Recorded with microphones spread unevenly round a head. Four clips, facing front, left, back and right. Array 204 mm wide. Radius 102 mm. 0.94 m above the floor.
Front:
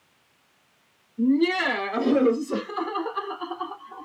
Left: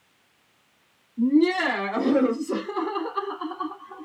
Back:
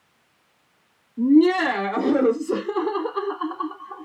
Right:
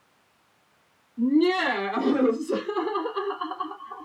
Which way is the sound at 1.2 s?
175° left.